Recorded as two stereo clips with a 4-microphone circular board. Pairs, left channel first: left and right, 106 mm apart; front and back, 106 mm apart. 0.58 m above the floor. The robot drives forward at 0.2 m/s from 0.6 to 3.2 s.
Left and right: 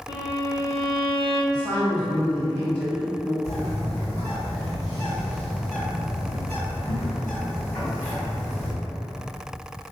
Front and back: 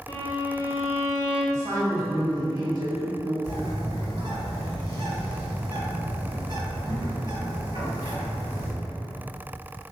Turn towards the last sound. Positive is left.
turn(degrees=175)